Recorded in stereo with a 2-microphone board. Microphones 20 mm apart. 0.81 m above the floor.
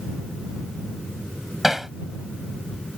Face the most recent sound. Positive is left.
turn(degrees=-15)  # may be behind; listen again after turning